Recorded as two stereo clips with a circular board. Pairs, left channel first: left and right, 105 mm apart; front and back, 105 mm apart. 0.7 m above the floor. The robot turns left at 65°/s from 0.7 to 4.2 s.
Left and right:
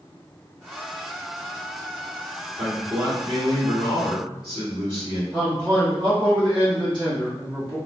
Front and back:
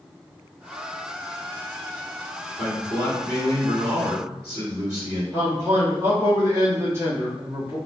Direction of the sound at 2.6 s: 25° right.